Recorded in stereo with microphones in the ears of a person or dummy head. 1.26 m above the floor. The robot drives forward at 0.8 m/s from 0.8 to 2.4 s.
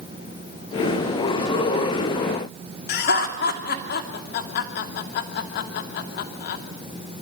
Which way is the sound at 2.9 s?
60° left (ahead or behind).